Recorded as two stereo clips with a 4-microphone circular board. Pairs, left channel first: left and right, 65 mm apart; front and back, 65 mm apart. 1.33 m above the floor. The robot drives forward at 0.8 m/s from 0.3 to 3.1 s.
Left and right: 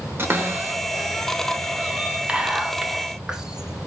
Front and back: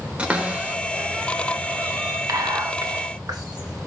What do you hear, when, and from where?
0.2 s a cupboard door: 120° right, 1.3 m; by 2.2 s 160° right, 2.5 m
2.3 s whispering: 160° right, 1.1 m; by 3.9 s 170° right, 1.7 m